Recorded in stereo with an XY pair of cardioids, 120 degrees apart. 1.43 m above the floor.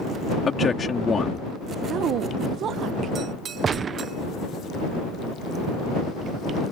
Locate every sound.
0.5 s a man speaking: 25° left
1.9 s a woman speaking: 60° right
3.6 s a gunshot: 40° right